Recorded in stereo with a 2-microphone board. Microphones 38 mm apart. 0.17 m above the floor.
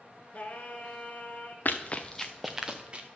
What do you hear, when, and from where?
0.3 s singing: 40° left (ahead or behind), 0.9 m
1.6 s running footsteps: 50° left (ahead or behind), 0.9 m; by 3.1 s 30° right (ahead or behind), 1.3 m